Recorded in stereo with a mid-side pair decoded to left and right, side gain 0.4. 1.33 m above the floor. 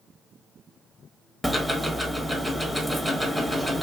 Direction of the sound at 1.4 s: 10° right.